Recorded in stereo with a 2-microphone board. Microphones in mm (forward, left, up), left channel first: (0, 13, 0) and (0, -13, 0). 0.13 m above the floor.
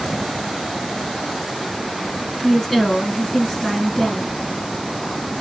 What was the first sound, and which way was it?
A woman speaking, 15° left (ahead or behind).